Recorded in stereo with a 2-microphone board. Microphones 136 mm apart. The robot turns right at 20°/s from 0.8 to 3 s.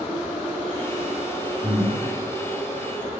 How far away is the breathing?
About 1.8 m.